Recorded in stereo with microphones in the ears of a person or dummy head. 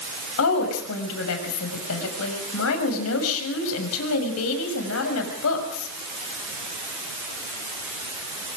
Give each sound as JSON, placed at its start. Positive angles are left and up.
{"t": 0.4, "sound": "a woman speaking", "side_deg": 85, "distance_m": 6.0}